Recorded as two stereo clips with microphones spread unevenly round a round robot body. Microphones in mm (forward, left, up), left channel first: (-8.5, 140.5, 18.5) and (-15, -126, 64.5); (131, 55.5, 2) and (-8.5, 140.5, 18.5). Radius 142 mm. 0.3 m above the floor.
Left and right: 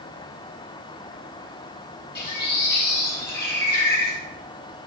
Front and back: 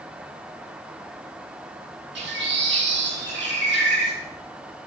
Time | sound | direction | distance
2.1 | a bird | 145° left | 4.5 m